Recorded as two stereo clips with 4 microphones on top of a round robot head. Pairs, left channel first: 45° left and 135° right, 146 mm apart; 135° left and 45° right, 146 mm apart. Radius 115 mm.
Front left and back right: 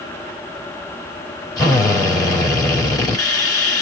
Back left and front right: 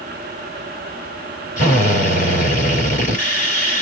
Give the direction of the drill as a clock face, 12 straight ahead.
8 o'clock.